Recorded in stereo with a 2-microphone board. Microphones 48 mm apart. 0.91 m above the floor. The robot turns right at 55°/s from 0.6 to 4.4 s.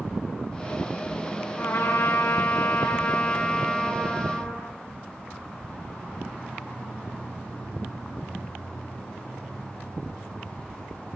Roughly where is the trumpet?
Ahead left.